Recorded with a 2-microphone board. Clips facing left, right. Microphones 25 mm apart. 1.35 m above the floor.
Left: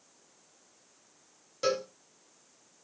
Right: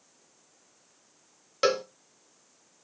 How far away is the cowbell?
About 0.5 m.